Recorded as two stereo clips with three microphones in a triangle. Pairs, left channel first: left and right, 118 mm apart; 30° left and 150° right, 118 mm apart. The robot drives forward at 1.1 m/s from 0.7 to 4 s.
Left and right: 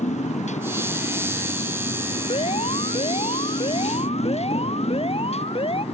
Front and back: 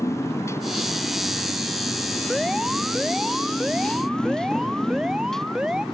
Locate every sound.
0.0 s a motorcycle: 95° left; by 5.9 s 120° left
2.3 s an alarm: 125° left